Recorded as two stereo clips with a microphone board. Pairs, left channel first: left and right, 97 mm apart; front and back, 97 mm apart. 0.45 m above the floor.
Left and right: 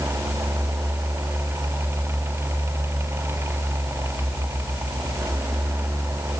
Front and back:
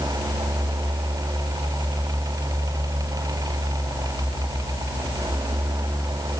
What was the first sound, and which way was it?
Only background noise.